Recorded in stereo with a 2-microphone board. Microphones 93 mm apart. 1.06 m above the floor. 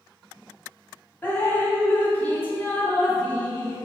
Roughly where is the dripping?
Left.